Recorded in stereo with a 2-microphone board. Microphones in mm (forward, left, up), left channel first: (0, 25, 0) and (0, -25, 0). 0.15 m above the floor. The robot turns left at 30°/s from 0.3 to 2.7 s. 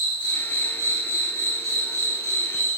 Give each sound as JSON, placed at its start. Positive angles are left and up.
{"t": 0.0, "sound": "an insect", "azimuth_deg": 150, "distance_m": 1.2}